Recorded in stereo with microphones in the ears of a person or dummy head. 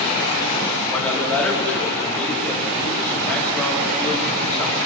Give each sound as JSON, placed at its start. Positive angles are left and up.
{"t": 0.9, "sound": "a man speaking", "side_deg": 10, "distance_m": 7.0}